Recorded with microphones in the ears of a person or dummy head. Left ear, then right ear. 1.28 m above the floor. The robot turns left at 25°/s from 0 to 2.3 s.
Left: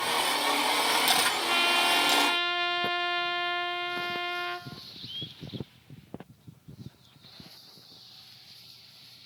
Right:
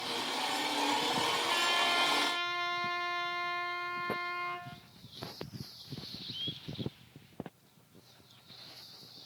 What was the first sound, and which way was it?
A trumpet, 35° left (ahead or behind).